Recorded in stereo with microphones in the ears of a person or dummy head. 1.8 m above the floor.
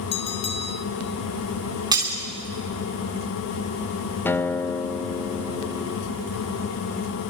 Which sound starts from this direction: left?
A bell, at 0.1 s.